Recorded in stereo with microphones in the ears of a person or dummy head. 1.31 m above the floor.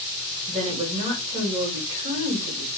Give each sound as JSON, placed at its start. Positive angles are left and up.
{"t": 0.5, "sound": "a woman speaking", "side_deg": -25, "distance_m": 1.8}